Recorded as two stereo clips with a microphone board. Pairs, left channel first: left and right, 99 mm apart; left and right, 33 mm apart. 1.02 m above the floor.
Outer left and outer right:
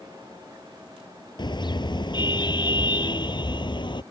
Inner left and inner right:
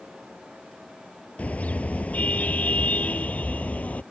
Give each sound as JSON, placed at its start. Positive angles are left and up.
{"t": 1.4, "sound": "a car horn", "side_deg": 50}